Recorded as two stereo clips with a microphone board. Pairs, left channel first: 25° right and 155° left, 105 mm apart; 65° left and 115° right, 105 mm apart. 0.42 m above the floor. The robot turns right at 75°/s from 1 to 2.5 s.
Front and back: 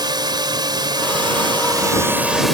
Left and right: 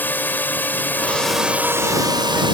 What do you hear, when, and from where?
0.0 s a drone: 135° left; by 2.5 s 115° right